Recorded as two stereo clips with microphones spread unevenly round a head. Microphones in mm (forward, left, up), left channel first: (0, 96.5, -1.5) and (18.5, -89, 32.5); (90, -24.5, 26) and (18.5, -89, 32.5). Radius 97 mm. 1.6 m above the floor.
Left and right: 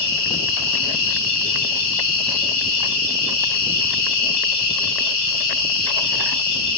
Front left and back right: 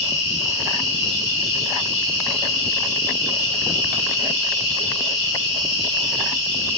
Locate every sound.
0.0 s an insect: 115° left, 2.5 m